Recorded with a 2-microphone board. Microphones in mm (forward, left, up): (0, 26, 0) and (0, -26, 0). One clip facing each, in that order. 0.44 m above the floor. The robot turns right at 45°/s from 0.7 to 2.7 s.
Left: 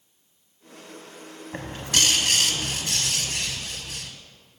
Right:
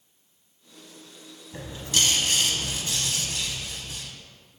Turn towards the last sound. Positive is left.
turn(degrees=110)